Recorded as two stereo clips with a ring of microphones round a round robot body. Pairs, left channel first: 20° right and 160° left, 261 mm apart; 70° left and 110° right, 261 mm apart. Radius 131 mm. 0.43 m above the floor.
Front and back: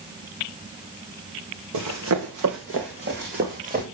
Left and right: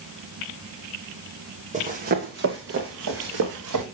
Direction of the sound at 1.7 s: 175° right.